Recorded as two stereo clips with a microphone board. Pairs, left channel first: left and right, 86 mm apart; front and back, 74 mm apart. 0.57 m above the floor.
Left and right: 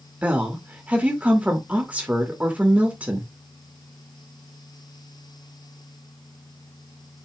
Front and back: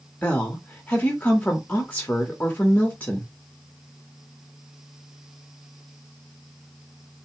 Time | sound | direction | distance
0.2 | a woman speaking | 40° right | 1.2 m